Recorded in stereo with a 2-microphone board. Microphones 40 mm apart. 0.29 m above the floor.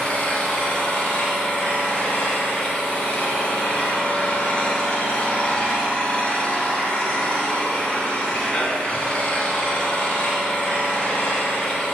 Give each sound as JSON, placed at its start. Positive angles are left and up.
{"t": 0.0, "sound": "an engine running", "side_deg": 25, "distance_m": 1.6}